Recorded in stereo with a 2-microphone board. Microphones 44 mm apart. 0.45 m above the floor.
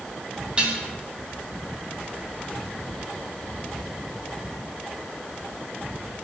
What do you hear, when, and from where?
0.6 s dishes clattering: 25° right (ahead or behind), 2.5 m